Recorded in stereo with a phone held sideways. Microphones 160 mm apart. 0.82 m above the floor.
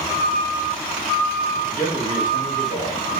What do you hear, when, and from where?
1.7 s a man speaking: 55° left (ahead or behind), 1.2 m